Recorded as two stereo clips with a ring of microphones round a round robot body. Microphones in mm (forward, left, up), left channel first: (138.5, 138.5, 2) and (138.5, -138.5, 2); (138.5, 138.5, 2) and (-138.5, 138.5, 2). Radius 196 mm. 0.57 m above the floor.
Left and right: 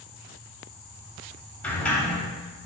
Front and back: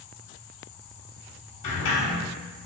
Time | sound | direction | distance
1.6 | a sliding door | 5° left | 1.2 m